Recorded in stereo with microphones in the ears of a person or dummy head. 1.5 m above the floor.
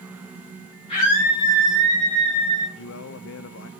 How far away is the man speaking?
About 0.7 m.